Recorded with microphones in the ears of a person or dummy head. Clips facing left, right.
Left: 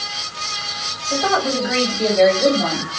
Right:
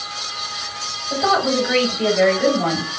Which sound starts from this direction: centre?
A woman speaking, at 1.1 s.